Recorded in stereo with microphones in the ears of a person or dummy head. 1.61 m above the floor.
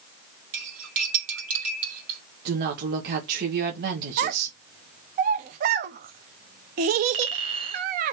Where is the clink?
30° right (ahead or behind), 1.3 m.